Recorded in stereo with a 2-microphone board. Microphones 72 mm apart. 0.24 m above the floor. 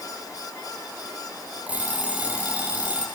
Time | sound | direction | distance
1.7 | an alarm clock | 20° right (ahead or behind) | 5.5 m